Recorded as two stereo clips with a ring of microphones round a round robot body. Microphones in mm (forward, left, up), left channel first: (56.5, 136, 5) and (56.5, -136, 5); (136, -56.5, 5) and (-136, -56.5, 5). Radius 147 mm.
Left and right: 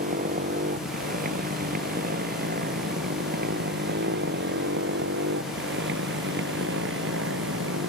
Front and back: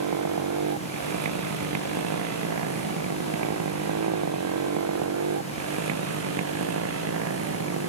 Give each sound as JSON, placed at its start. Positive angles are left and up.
{"t": 0.0, "sound": "a motorcycle", "azimuth_deg": -155}